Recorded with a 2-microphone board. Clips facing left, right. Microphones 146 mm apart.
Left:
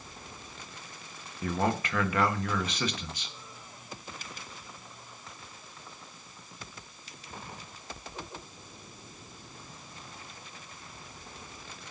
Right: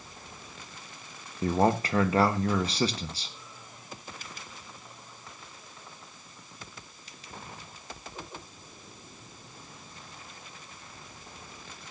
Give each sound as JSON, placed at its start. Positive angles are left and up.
{"t": 1.4, "sound": "a man speaking", "side_deg": -35, "distance_m": 1.2}